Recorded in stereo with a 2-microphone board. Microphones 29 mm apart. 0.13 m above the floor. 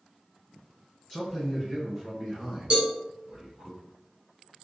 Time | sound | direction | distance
1.1 | a man speaking | 15° left (ahead or behind) | 1.4 m
2.7 | a cowbell | 35° right (ahead or behind) | 1.2 m